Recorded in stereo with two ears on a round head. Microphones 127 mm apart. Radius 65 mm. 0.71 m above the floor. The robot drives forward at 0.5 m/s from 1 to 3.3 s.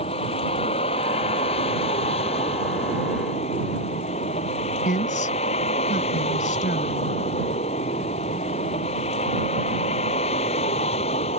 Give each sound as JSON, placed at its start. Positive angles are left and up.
{"t": 0.0, "sound": "a vehicle", "side_deg": 45}
{"t": 4.8, "sound": "a woman speaking", "side_deg": 60}